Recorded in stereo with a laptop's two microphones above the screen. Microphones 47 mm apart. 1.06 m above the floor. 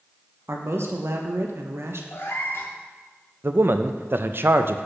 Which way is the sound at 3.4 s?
50° right (ahead or behind).